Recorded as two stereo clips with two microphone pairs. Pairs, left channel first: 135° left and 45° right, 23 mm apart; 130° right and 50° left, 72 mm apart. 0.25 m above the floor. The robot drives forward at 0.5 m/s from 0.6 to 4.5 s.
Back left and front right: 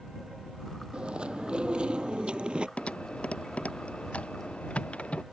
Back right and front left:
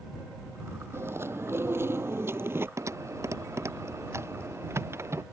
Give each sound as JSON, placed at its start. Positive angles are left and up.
{"t": 0.9, "sound": "chewing", "azimuth_deg": -5}
{"t": 2.8, "sound": "typing on a keyboard", "azimuth_deg": 95}